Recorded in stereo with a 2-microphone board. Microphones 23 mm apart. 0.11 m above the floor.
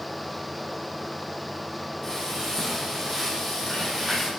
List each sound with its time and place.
2.0 s frying: 15° left (ahead or behind), 5.5 m